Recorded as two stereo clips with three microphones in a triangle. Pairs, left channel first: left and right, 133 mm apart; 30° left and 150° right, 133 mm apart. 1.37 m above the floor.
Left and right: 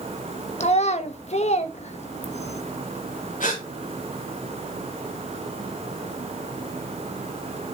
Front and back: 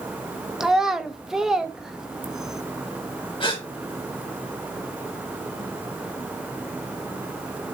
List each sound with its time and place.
0.6 s a child speaking: 125° left, 1.3 m
3.4 s a gasp: 80° left, 5.5 m